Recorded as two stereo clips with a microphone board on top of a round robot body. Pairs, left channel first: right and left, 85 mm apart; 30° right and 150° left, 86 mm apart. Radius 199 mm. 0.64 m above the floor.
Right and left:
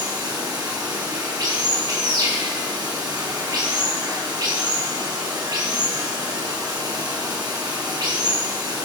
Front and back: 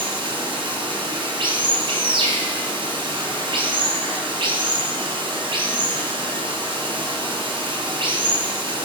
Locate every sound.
0.0 s running water: 130° left, 4.5 m